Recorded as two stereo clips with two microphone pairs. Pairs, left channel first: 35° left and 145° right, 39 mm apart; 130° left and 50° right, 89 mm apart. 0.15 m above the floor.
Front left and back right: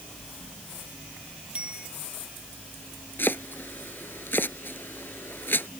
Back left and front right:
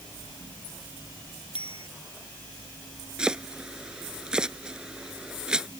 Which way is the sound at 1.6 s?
150° left.